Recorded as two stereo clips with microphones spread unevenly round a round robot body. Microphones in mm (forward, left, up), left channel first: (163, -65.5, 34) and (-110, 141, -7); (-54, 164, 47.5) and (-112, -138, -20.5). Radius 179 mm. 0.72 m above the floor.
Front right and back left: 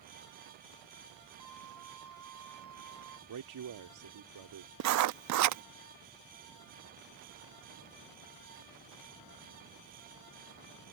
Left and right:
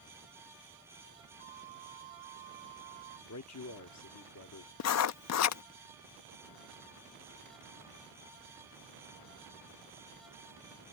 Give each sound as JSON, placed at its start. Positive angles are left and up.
{"t": 1.4, "sound": "a flute", "azimuth_deg": 5}
{"t": 3.3, "sound": "a man speaking", "azimuth_deg": 120}
{"t": 4.8, "sound": "writing", "azimuth_deg": 120}